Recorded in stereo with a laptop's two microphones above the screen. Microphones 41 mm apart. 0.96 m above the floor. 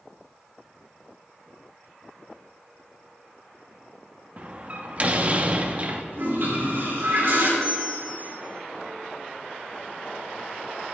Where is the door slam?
35° right (ahead or behind), 1.1 m.